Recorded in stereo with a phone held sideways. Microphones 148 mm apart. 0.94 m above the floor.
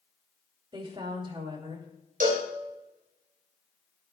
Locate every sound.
0.7 s a woman speaking: 35° right (ahead or behind), 3 m
2.2 s a cowbell: 65° right (ahead or behind), 3.5 m